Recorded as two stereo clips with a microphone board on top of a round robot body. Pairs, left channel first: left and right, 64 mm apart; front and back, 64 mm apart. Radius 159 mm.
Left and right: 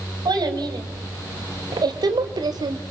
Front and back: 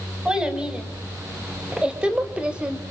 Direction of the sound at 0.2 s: 105° right.